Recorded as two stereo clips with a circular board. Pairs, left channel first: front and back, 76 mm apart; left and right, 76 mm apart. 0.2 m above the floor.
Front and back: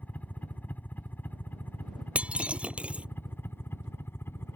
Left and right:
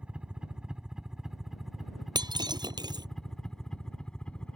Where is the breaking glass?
105° right.